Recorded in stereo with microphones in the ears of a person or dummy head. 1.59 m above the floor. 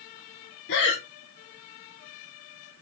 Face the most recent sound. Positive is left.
turn(degrees=65)  # may be behind; listen again after turning